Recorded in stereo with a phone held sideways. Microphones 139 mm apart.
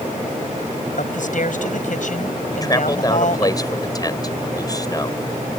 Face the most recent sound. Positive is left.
turn(degrees=25)  # may be behind; listen again after turning